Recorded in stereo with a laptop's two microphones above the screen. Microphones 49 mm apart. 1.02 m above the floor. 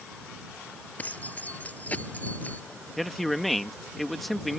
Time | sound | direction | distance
1.0 | keys jangling | 30° left (ahead or behind) | ?
3.0 | a man speaking | 5° left (ahead or behind) | ?